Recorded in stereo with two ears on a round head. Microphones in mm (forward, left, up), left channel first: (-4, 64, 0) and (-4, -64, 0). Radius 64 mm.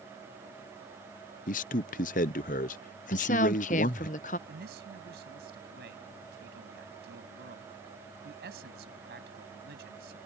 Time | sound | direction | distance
1.5 | a man speaking | 60° left (ahead or behind) | ?
3.1 | a woman speaking | 60° left (ahead or behind) | ?
4.5 | a man speaking | 80° right | ?